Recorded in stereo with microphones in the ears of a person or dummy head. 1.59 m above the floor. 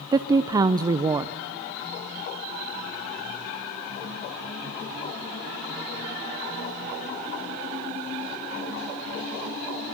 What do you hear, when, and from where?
0.1 s a woman speaking: 25° right (ahead or behind), 0.7 m